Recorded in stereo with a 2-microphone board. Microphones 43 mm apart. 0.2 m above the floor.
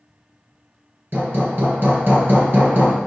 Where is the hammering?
55° right (ahead or behind), 3 m.